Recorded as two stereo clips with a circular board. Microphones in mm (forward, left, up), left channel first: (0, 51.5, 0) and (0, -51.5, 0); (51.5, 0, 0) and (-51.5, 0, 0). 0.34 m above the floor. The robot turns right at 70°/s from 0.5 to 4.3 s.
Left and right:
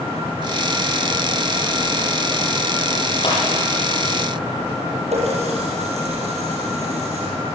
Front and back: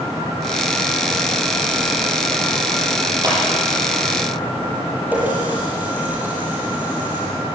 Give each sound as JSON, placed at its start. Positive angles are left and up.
{"t": 3.2, "sound": "a clap", "azimuth_deg": 130, "distance_m": 9.5}
{"t": 5.1, "sound": "a running tap", "azimuth_deg": -105, "distance_m": 7.5}